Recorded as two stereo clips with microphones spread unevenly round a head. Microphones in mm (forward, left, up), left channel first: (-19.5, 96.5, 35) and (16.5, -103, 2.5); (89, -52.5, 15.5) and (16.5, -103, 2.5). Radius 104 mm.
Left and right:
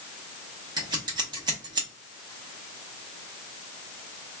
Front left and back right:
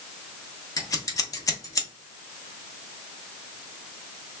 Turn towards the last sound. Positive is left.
turn(degrees=-5)